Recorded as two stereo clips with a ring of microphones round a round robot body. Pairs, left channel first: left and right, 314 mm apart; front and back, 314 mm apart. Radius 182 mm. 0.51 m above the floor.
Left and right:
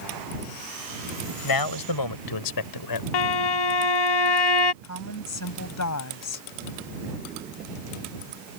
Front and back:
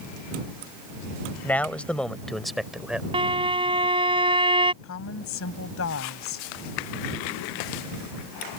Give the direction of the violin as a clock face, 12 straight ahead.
9 o'clock.